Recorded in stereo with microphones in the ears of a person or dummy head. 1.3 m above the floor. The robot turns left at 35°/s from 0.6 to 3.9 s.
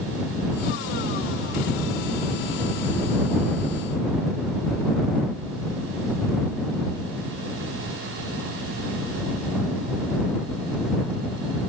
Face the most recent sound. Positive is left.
No sound to turn to.